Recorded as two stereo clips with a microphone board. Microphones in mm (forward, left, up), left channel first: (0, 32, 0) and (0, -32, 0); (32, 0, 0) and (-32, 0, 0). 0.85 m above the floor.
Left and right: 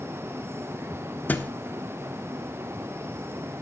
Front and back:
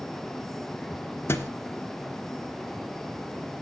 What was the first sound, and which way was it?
A thud, 40° left.